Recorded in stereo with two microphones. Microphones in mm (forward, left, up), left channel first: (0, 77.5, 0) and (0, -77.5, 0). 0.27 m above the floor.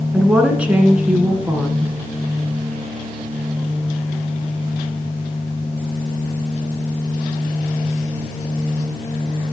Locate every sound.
0.1 s a woman speaking: 10° right (ahead or behind), 2.5 m